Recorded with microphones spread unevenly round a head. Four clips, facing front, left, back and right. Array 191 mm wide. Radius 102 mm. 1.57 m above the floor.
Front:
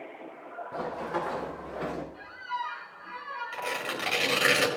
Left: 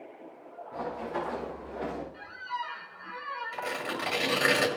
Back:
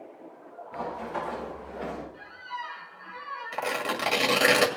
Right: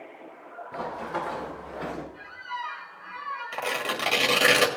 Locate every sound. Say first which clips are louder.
0.7 s running footsteps: right 2 dB, front 1 dB; 15° right, 6 m; by 2.0 s 25° right, 6 m
2.1 s a squeak: even, front 3 dB; 65° left, 2 m
3.5 s tearing paper: right 5 dB, back 6 dB; 135° right, 1.9 m